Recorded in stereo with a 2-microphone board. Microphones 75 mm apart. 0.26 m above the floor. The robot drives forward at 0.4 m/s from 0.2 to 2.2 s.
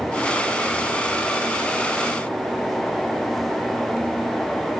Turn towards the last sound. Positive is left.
No sound to turn to.